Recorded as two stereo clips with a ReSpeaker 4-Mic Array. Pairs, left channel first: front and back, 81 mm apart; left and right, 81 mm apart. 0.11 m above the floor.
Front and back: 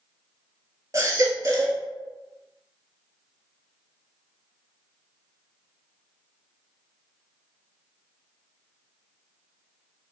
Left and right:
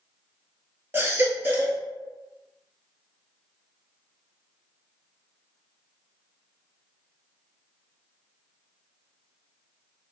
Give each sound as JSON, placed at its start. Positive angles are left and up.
{"t": 0.9, "sound": "a baby crying", "azimuth_deg": -145, "distance_m": 0.9}